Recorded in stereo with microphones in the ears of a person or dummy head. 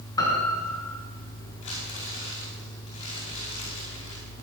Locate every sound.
0.2 s a piano: 25° left (ahead or behind), 4.5 m
1.6 s crumpling: 40° left (ahead or behind), 5 m